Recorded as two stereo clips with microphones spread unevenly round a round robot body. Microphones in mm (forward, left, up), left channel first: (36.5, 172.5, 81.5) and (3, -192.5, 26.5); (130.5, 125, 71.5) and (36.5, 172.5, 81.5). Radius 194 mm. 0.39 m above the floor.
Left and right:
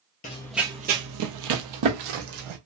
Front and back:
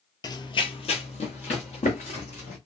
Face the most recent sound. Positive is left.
turn(degrees=-75)